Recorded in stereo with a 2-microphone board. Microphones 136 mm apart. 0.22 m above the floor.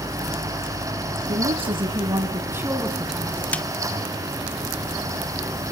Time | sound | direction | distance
1.3 | a woman speaking | 50° right (ahead or behind) | 3 m
3.5 | a snare drum | 10° left (ahead or behind) | 1.1 m